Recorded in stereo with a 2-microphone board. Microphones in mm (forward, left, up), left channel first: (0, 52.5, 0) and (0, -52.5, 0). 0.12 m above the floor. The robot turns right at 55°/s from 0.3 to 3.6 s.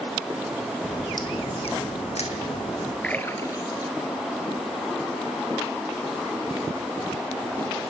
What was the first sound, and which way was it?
A crack, 20° left.